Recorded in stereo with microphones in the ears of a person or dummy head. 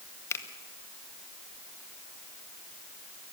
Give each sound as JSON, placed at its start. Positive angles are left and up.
{"t": 0.3, "sound": "a finger snap", "side_deg": 15, "distance_m": 1.6}